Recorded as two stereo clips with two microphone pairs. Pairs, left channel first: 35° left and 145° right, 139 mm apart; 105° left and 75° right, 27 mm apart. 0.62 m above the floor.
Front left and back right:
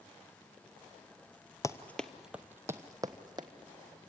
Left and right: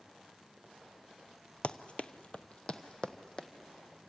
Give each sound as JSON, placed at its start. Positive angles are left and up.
{"t": 1.6, "sound": "running footsteps", "azimuth_deg": 90, "distance_m": 0.8}